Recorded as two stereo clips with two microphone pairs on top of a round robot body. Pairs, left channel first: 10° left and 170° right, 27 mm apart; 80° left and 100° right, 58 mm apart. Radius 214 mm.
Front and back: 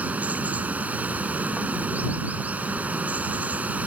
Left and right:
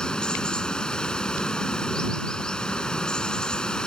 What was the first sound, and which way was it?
Running water, 155° left.